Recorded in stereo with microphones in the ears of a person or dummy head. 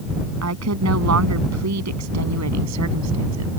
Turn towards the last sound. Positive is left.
turn(degrees=-85)